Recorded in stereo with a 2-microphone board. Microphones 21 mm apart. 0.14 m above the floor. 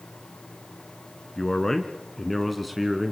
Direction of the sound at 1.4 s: 30° left (ahead or behind).